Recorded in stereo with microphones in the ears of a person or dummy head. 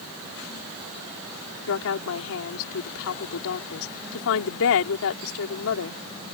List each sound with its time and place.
1.7 s a woman speaking: 75° left (ahead or behind)